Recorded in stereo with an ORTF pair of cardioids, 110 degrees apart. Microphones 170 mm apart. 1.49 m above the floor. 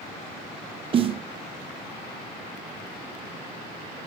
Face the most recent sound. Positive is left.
turn(degrees=-35)